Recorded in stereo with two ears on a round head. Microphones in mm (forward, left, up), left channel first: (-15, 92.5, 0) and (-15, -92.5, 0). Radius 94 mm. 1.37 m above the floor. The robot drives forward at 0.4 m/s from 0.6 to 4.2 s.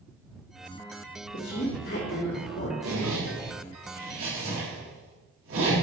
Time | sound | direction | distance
1.3 | a woman speaking | 40° left (ahead or behind) | 3.5 m
2.8 | a zipper | 85° right | 3 m